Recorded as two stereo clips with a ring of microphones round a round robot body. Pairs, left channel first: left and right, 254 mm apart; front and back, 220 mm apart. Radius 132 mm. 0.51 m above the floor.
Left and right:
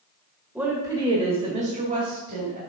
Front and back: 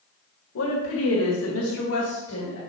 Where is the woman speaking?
5° right, 1.5 m; by 2.6 s 40° right, 2.5 m.